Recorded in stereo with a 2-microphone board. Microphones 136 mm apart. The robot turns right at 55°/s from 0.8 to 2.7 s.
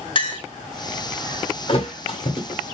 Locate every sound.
0.1 s a clink: 40° left (ahead or behind), 0.9 m
1.7 s a thud: 40° left (ahead or behind), 1.5 m